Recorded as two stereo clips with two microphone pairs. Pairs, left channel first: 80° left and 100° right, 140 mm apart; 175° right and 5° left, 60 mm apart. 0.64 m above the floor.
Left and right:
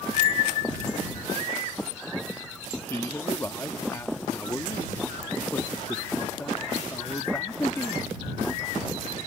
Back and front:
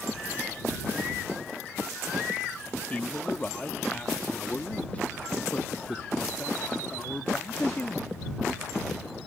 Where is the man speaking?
140° left.